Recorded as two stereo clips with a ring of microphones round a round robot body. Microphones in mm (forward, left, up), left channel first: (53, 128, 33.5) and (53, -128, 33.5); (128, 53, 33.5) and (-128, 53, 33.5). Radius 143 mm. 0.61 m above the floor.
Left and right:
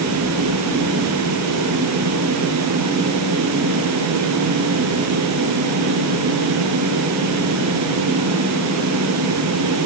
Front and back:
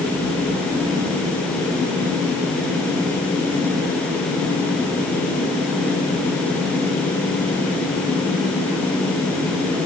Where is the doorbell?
I don't hear a doorbell.